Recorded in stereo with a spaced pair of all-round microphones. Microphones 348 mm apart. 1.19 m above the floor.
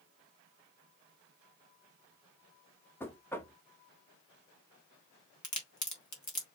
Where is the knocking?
5° left (ahead or behind), 0.8 m.